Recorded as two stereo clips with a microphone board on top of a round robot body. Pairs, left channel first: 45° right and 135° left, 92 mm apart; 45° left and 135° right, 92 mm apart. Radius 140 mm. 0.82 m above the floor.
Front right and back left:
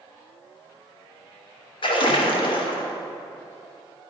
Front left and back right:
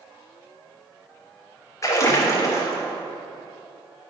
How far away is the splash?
About 1.0 m.